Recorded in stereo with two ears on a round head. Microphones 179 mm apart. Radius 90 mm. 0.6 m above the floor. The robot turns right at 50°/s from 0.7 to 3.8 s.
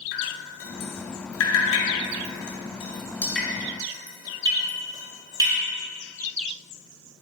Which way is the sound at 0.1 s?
45° left (ahead or behind).